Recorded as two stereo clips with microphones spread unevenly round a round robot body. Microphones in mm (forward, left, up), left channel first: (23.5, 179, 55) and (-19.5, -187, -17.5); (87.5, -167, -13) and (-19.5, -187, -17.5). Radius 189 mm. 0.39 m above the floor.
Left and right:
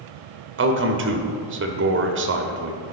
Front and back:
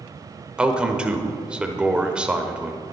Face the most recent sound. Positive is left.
turn(degrees=-95)